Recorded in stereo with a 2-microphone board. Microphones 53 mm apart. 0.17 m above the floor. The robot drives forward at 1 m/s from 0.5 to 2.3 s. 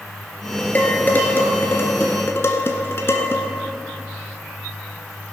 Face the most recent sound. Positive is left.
turn(degrees=55)  # may be behind; listen again after turning